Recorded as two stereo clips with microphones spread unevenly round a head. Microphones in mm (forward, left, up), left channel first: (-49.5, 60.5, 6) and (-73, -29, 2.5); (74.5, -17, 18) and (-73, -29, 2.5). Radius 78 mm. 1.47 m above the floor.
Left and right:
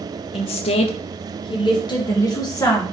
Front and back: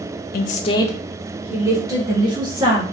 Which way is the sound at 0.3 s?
35° left.